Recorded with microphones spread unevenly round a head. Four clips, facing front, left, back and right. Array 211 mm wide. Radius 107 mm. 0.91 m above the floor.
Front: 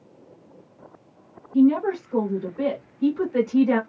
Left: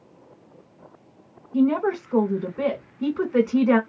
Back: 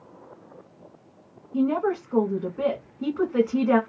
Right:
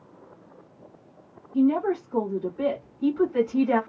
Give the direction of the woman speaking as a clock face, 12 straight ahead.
9 o'clock.